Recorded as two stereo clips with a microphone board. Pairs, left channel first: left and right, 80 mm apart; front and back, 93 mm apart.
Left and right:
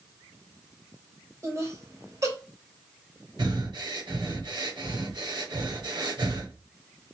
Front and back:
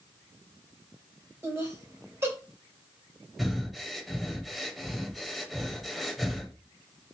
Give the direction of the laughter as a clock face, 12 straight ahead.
4 o'clock.